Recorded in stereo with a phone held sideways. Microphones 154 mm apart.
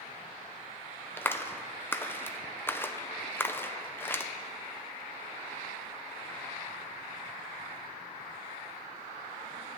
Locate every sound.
1.2 s a clap: 15° left (ahead or behind), 0.6 m